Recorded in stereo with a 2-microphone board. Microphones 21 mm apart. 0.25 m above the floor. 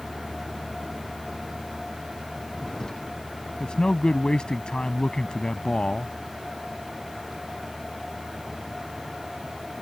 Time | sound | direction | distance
0.0 | a vehicle | 25° left (ahead or behind) | ?
3.6 | a man speaking | 45° left (ahead or behind) | ?